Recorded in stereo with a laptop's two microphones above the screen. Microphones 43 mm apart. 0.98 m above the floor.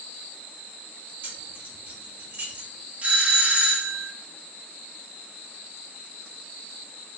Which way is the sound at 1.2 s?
55° right (ahead or behind).